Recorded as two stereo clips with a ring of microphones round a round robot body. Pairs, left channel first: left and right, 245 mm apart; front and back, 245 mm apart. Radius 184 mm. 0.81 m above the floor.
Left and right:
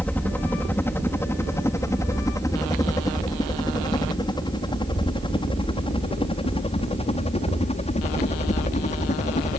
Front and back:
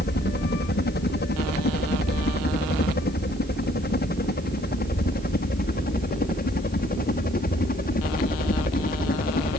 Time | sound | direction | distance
0.0 | a helicopter | 10° left | ?